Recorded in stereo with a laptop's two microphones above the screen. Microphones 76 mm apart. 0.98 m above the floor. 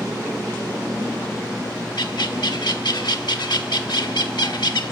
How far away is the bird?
About 1.1 m.